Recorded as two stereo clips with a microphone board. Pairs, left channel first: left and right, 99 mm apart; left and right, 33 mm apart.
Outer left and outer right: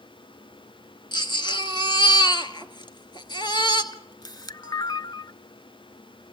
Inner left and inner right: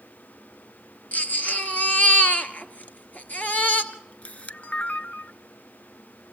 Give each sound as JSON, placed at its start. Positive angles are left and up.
{"t": 1.1, "sound": "a baby crying", "side_deg": 50, "distance_m": 1.5}
{"t": 3.9, "sound": "a camera shutter", "side_deg": 45, "distance_m": 0.5}